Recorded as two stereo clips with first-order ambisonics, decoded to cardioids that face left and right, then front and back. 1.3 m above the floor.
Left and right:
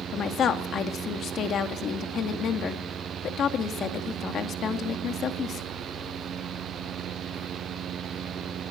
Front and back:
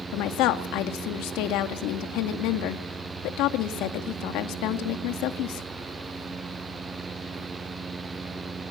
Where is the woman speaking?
30° left, 2 m.